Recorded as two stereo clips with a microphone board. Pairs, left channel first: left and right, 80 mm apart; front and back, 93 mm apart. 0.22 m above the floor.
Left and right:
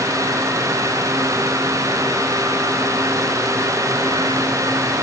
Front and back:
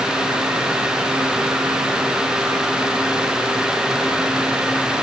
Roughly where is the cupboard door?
No cupboard door in this recording.